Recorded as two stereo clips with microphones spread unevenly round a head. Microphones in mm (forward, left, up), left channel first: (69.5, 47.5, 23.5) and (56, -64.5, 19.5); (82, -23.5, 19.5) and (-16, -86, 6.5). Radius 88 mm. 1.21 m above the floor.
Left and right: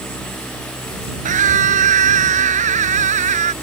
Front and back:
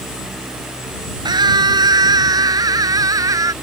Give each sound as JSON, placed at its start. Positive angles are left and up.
{"t": 1.2, "sound": "a scream", "azimuth_deg": -95}